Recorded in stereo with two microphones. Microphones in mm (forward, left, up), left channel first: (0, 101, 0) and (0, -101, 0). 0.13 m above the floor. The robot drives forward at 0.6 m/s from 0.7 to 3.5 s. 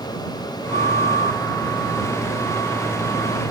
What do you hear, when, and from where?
0.7 s a flute: 40° right (ahead or behind)